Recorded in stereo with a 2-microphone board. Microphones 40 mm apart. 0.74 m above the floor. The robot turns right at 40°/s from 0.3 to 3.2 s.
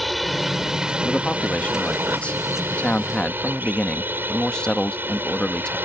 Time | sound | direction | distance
0.0 | a drone | centre (ahead or behind) | ?
1.0 | a man speaking | 55° left | ?